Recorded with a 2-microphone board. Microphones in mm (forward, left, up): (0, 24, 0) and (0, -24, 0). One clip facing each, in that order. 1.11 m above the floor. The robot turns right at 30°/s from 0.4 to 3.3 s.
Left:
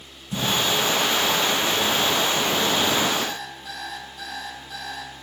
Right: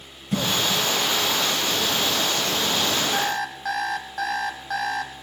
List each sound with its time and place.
0.3 s a cough: 65° right (ahead or behind), 5.5 m; by 0.9 s 80° right, 5.5 m
3.1 s an alarm clock: 65° right (ahead or behind), 5.5 m; by 5.1 s 60° right (ahead or behind), 5.5 m